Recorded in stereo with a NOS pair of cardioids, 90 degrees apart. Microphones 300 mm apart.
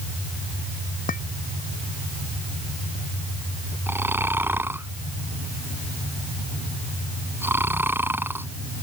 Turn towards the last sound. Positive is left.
turn(degrees=-5)